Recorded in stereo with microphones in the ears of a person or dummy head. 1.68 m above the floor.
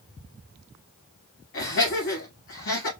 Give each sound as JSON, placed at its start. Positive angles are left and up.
{"t": 1.5, "sound": "laughter", "side_deg": 65, "distance_m": 3.0}